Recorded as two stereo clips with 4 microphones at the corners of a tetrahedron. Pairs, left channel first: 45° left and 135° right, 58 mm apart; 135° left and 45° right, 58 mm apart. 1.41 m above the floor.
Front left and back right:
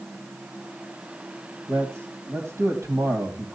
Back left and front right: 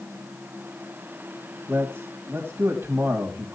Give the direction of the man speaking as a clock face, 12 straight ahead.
3 o'clock.